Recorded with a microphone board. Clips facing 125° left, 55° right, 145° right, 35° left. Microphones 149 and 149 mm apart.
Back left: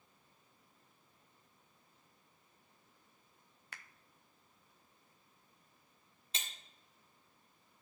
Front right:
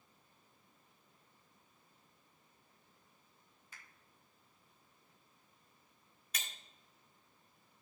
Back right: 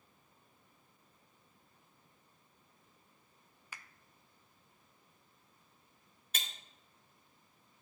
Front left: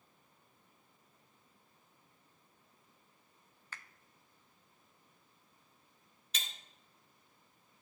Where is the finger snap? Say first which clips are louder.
Back left 5 dB, front left 1 dB; 135° left, 0.5 m.